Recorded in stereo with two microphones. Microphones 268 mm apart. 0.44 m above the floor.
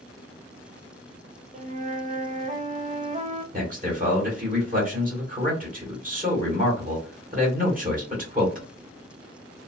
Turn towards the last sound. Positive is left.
turn(degrees=-30)  # may be behind; listen again after turning